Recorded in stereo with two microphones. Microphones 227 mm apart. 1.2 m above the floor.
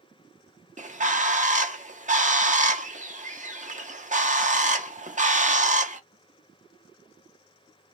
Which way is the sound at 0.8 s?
35° right (ahead or behind).